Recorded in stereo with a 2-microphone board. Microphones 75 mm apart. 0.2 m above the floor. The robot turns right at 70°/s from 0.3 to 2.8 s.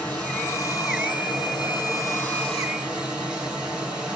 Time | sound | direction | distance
0.0 | running water | 20° left | 1.8 m